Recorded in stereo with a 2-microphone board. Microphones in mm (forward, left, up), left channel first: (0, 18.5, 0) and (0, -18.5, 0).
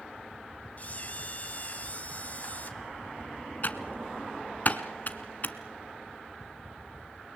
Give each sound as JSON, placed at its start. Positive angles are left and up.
{"t": 0.8, "sound": "a camera shutter", "side_deg": 40, "distance_m": 2.0}
{"t": 3.6, "sound": "typing on a keyboard", "side_deg": 45, "distance_m": 1.2}